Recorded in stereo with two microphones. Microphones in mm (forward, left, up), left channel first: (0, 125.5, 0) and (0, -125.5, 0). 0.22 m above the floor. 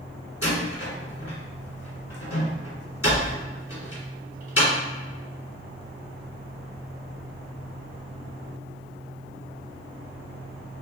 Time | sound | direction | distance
0.4 | a door slam | 60° left (ahead or behind) | 1.5 m